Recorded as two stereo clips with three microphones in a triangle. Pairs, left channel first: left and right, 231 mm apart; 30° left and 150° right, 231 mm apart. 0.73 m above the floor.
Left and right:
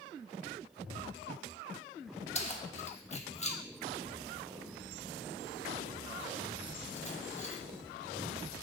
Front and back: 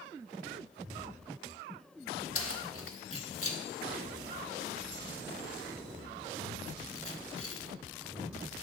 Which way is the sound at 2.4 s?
35° left.